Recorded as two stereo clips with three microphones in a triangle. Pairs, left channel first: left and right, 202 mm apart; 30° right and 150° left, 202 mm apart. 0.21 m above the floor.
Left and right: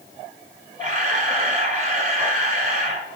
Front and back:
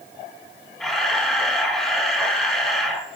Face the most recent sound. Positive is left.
turn(degrees=-115)